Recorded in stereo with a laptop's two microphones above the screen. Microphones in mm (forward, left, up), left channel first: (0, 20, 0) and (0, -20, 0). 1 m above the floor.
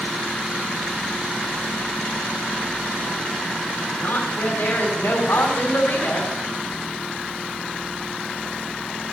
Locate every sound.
4.0 s a woman speaking: 70° left (ahead or behind), 3.5 m